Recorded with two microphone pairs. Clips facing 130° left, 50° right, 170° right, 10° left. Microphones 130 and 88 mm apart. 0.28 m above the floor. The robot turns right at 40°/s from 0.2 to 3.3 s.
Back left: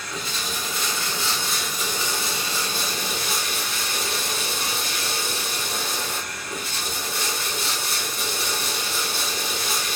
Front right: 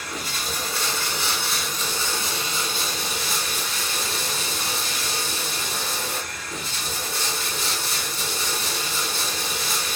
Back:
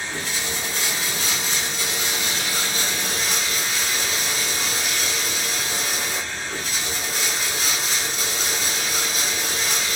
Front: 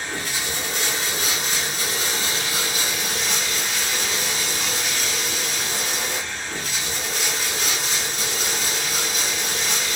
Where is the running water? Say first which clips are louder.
Even, even; 15° right, 1.9 m; by 10.0 s 105° left, 1.9 m.